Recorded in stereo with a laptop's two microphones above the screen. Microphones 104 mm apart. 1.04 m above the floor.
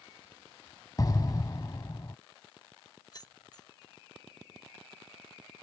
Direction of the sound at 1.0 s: 40° left (ahead or behind).